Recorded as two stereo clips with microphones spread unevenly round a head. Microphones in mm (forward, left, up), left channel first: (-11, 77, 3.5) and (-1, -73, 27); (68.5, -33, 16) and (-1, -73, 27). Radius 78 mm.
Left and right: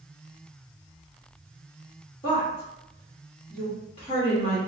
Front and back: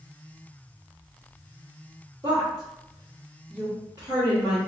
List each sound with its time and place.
2.2 s a woman speaking: 150° left, 1.3 m